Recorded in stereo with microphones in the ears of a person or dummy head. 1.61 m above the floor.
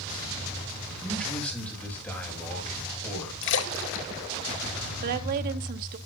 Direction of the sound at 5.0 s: 50° right (ahead or behind).